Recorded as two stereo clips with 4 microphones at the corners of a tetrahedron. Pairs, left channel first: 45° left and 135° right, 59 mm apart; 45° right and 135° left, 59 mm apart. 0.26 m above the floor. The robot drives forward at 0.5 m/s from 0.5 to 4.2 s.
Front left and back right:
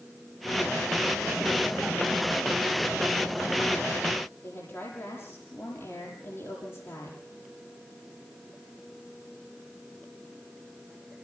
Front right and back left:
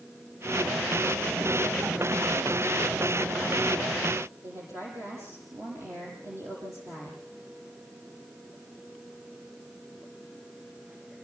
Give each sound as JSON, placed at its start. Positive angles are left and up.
{"t": 4.4, "sound": "a woman speaking", "azimuth_deg": 95, "distance_m": 8.5}